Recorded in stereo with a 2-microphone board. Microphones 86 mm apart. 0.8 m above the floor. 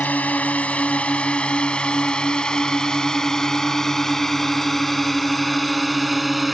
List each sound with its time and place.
0.0 s a drone: 20° left (ahead or behind); by 6.5 s centre (ahead or behind)